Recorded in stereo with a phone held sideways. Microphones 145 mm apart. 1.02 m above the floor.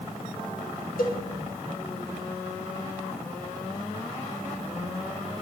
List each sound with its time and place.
1.0 s a cowbell: 75° left (ahead or behind), 1.5 m